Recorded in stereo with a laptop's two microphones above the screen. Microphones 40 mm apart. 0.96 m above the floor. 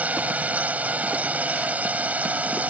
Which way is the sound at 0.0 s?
35° right (ahead or behind).